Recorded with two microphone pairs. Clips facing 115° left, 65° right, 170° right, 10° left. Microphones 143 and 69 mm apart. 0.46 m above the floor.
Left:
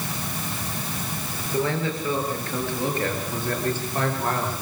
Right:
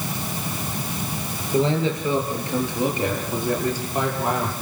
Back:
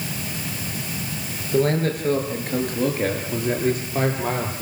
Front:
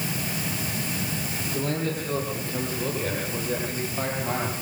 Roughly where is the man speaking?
Behind right.